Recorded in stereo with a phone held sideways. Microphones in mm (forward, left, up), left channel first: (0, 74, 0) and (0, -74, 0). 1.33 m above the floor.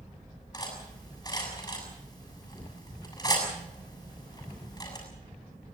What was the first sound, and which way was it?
Cutlery clinking, 25° left (ahead or behind).